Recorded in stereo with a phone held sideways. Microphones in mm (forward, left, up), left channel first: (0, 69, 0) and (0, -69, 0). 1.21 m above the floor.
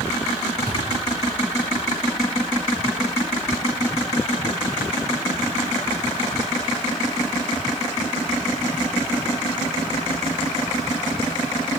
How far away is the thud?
About 4.5 m.